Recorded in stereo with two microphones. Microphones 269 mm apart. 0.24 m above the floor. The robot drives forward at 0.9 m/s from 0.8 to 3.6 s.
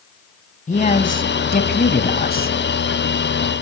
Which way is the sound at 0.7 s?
30° left (ahead or behind).